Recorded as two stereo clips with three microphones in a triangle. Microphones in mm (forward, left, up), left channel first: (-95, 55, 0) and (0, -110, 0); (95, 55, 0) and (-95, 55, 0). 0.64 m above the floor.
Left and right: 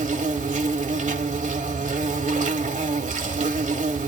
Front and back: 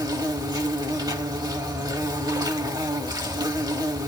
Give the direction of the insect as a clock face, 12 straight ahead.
4 o'clock.